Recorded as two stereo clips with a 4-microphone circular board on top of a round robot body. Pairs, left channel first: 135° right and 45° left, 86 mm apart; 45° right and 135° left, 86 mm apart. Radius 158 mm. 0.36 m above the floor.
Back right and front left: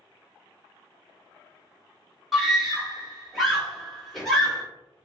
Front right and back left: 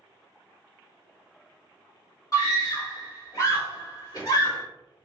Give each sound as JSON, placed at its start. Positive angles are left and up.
{"t": 2.3, "sound": "a scream", "azimuth_deg": -45, "distance_m": 1.8}